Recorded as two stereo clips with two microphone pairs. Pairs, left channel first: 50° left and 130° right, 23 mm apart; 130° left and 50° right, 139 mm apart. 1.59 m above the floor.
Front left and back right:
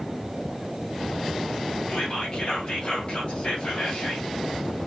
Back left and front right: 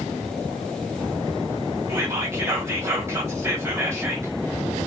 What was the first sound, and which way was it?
Whispering, 15° left.